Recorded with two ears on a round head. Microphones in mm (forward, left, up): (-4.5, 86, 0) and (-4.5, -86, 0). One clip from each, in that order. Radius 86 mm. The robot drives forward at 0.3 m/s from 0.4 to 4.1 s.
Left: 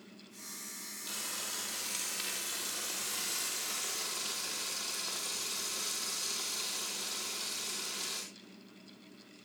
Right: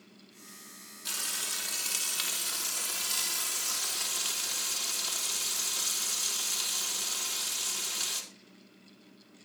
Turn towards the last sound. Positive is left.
turn(degrees=-50)  # may be behind; listen again after turning